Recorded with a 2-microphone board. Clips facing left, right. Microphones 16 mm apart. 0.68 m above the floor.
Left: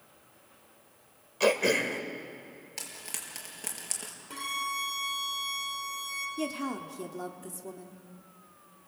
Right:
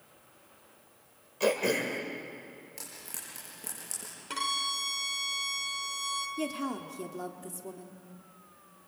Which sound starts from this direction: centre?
A woman speaking, at 6.4 s.